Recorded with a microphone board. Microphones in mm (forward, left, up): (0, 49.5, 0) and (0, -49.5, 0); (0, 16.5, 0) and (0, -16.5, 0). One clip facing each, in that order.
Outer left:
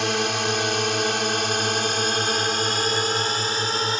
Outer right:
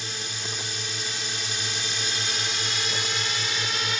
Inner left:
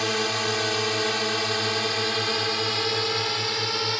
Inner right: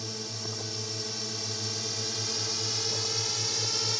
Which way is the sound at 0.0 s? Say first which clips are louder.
Outer left 14 dB, inner left 14 dB; 70° left (ahead or behind).